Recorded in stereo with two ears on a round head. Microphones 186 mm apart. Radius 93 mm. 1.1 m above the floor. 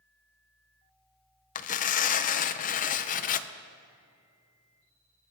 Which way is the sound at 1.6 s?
40° left (ahead or behind).